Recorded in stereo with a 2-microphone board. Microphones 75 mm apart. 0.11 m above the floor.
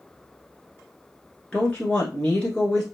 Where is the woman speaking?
15° left (ahead or behind), 1.4 m.